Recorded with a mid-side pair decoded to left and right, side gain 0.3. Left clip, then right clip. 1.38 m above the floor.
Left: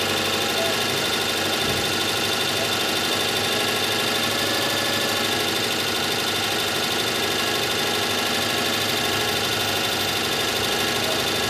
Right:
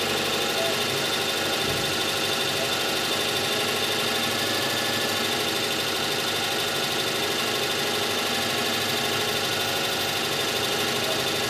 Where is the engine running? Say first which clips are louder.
Left 2 dB; 35° left, 2.5 m.